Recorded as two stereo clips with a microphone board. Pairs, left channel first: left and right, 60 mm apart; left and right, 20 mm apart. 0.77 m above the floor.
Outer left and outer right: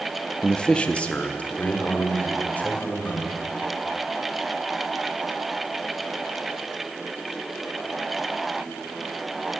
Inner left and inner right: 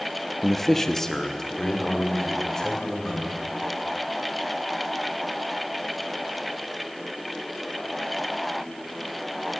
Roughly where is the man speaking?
Centre.